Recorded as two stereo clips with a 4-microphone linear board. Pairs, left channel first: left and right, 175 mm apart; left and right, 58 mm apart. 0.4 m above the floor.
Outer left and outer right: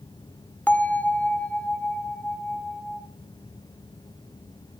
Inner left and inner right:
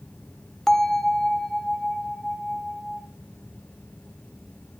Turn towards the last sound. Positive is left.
turn(degrees=10)  # may be behind; listen again after turning